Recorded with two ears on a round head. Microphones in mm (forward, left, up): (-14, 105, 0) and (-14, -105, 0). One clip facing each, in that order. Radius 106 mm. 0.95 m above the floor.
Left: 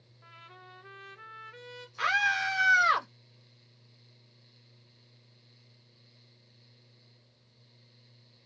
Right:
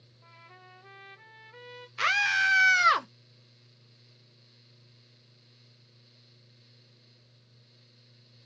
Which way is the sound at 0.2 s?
20° left (ahead or behind).